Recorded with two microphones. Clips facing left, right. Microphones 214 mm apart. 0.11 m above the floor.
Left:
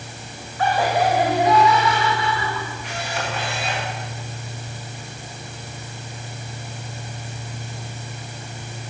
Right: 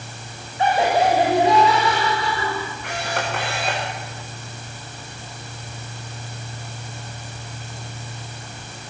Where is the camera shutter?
55° right (ahead or behind), 6.5 m.